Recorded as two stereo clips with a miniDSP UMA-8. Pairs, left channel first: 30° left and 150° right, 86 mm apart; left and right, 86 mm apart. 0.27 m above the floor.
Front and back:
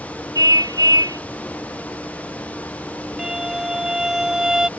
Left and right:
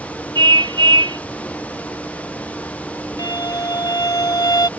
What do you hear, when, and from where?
0.3 s a car horn: 110° right
3.2 s a violin: 125° left